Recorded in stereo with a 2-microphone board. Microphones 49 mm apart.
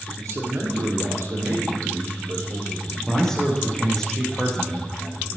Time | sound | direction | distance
0.2 | a man speaking | 75° right (ahead or behind) | 5 m
3.1 | a man speaking | 10° left (ahead or behind) | 4 m